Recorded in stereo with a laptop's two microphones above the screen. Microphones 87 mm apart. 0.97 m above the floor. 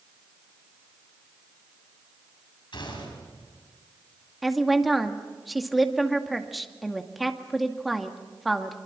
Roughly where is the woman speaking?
Centre.